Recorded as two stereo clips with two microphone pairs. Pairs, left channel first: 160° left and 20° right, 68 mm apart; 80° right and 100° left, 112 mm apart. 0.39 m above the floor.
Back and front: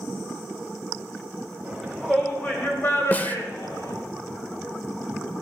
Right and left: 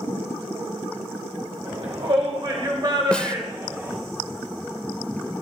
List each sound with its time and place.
1.6 s a shout: 70° left, 1.9 m; by 4.0 s 165° left, 2.5 m
3.1 s a snare drum: 155° right, 0.7 m